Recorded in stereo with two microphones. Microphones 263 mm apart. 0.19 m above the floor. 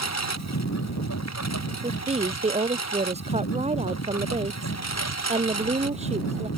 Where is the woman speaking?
25° right (ahead or behind).